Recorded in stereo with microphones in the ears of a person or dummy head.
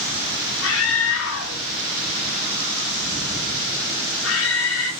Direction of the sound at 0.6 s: 85° left.